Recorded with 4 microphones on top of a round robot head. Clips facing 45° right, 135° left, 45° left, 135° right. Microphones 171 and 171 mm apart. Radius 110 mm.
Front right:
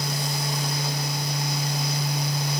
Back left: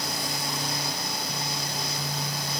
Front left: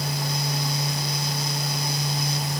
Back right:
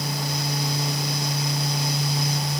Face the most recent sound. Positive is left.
No sound to turn to.